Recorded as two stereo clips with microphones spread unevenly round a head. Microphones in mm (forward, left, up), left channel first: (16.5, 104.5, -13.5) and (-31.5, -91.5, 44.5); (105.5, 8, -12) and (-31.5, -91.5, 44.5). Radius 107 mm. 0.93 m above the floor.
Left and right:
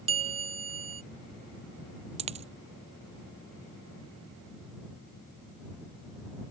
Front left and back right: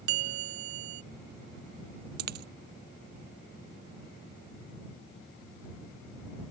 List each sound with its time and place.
0.1 s a bell: 160° right
2.2 s a dropped coin: 155° right